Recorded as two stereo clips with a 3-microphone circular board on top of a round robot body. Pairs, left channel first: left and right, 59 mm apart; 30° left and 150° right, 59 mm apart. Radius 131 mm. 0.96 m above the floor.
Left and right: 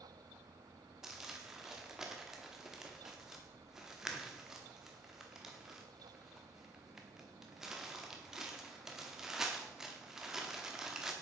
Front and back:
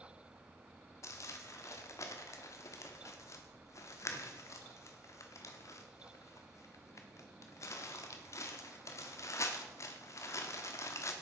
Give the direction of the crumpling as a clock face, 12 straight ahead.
12 o'clock.